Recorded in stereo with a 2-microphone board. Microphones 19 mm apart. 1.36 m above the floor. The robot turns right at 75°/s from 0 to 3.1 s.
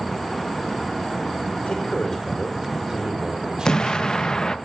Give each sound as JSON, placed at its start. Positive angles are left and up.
{"t": 1.7, "sound": "a man speaking", "azimuth_deg": 115, "distance_m": 5.5}
{"t": 3.6, "sound": "an explosion", "side_deg": 40, "distance_m": 0.7}